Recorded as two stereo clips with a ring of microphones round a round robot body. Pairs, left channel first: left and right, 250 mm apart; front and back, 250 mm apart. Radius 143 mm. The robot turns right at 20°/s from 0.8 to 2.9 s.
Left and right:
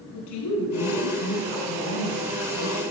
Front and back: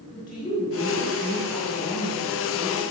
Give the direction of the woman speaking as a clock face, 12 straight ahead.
10 o'clock.